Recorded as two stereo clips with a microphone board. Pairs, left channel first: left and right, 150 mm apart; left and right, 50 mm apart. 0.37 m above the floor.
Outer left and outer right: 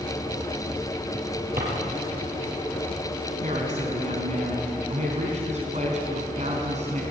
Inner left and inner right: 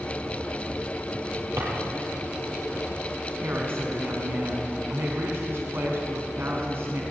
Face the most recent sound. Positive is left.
turn(degrees=-50)  # may be behind; listen again after turning